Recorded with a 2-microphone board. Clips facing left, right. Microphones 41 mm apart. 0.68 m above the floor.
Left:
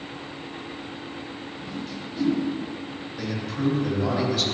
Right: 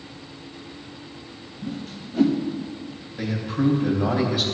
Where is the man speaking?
10° right (ahead or behind), 3 m.